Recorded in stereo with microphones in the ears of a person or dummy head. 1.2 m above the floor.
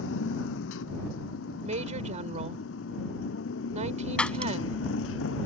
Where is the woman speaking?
40° right (ahead or behind).